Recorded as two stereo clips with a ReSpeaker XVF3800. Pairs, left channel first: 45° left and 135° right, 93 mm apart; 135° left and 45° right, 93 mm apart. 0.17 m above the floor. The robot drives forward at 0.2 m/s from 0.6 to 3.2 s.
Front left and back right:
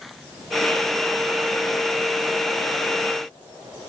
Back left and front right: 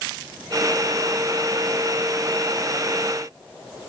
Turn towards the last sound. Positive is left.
No sound to turn to.